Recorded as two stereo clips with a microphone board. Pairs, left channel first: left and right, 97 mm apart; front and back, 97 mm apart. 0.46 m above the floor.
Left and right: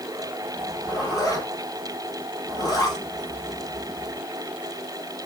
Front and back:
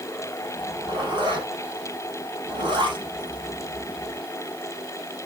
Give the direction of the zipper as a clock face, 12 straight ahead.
7 o'clock.